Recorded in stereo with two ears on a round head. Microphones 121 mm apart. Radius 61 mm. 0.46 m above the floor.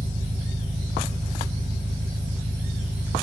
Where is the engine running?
40° right (ahead or behind), 0.7 m.